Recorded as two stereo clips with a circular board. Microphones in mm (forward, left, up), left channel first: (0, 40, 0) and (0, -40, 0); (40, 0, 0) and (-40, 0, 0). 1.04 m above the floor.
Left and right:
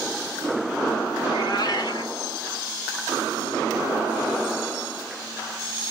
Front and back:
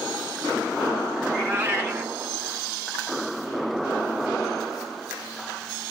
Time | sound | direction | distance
1.2 | a cat meowing | 115° left | 4.5 m